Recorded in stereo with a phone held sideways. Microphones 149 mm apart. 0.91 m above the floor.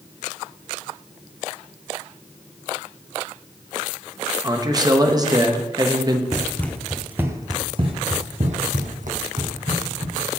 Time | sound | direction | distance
4.4 | a man speaking | 25° right (ahead or behind) | 1.2 m
6.3 | running footsteps | 20° left (ahead or behind) | 1.2 m